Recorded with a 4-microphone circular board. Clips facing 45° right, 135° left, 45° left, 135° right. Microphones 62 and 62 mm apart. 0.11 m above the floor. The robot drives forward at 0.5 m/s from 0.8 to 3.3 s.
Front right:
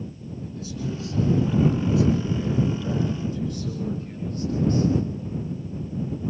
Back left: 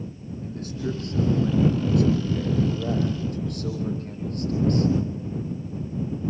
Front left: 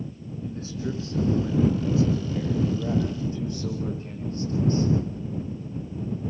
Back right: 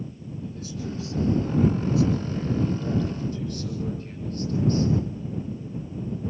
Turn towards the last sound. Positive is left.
turn(degrees=110)